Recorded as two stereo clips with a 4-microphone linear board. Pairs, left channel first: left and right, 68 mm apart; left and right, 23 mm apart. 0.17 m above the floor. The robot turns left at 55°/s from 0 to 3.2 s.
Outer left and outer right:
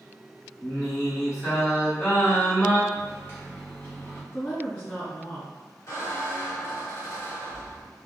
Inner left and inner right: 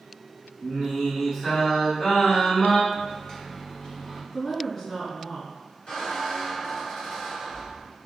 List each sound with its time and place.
0.6 s singing: 120° right, 1.6 m; by 2.8 s 120° left, 1.6 m
2.9 s a microwave: 30° left (ahead or behind), 1.1 m
4.3 s a woman speaking: 30° left (ahead or behind), 1.6 m
5.9 s a squeak: 45° left (ahead or behind), 1.6 m